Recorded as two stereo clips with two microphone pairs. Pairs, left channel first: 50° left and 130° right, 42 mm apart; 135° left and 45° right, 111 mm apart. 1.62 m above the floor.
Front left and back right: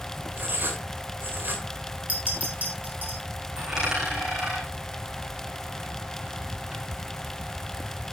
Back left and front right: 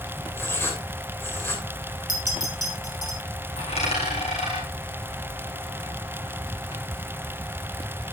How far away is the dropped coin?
About 6.5 m.